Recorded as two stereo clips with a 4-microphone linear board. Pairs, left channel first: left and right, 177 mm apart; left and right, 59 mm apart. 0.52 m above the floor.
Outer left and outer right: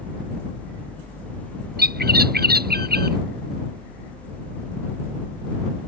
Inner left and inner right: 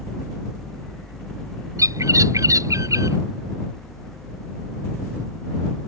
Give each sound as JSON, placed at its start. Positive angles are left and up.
{"t": 1.8, "sound": "a bird", "side_deg": -60}